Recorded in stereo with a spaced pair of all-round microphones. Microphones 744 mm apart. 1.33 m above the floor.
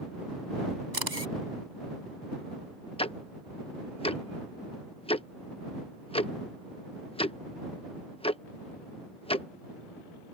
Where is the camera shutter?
60° right (ahead or behind).